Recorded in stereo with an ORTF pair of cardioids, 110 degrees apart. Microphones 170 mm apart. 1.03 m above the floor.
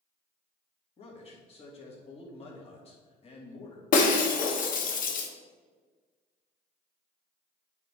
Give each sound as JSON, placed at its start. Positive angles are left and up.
{"t": 1.0, "sound": "a man speaking", "azimuth_deg": 40, "distance_m": 2.0}
{"t": 3.9, "sound": "breaking glass", "azimuth_deg": 55, "distance_m": 1.1}